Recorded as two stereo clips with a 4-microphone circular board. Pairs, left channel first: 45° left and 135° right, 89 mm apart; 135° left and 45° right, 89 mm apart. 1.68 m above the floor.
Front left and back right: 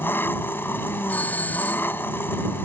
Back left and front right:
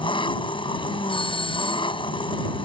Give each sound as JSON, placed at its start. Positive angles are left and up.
{"t": 0.0, "sound": "an engine running", "azimuth_deg": 110}
{"t": 1.1, "sound": "a doorbell", "azimuth_deg": 115}